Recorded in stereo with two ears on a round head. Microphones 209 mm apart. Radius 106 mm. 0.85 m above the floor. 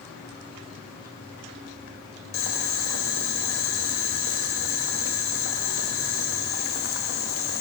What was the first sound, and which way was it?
Boiling, 60° left (ahead or behind).